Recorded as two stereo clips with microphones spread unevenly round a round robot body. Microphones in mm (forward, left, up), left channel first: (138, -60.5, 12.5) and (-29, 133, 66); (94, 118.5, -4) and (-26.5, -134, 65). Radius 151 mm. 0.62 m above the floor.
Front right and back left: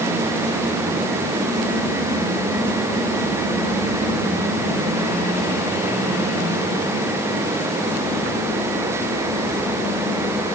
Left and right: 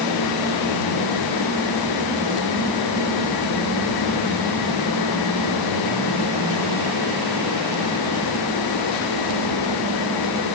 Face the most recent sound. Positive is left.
No sound to turn to.